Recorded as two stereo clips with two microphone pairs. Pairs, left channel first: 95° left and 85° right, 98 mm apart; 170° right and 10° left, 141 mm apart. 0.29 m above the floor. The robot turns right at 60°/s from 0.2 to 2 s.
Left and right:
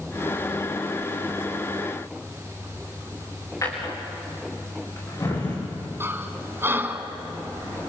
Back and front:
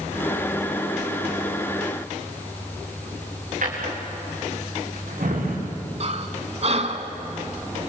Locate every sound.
3.6 s a drawer: 35° left, 7 m
6.0 s breathing: 25° right, 1.8 m